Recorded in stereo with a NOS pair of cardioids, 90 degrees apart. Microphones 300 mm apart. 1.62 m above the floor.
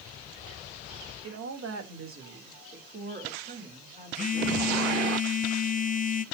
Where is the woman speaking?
55° right, 3 m; by 5.1 s 20° right, 4 m.